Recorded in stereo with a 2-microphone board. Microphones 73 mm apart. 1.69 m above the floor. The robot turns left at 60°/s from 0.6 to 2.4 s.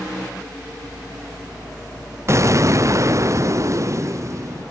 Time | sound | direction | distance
2.3 | an explosion | 35° right (ahead or behind) | 0.5 m